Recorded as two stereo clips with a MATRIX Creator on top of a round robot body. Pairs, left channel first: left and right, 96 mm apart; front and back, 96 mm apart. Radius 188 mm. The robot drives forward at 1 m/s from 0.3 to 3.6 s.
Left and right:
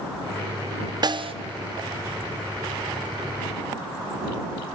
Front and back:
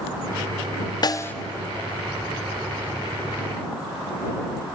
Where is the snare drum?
45° right, 0.6 m; by 1.3 s 75° right, 0.5 m.